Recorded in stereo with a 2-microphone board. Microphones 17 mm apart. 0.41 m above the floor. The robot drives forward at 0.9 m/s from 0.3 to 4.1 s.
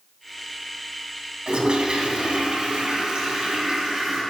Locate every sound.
1.5 s a toilet flushing: 60° right (ahead or behind), 3.5 m; by 4.2 s 40° right (ahead or behind), 4.5 m